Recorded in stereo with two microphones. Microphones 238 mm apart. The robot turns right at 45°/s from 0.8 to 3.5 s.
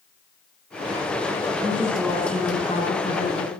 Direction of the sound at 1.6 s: 20° right.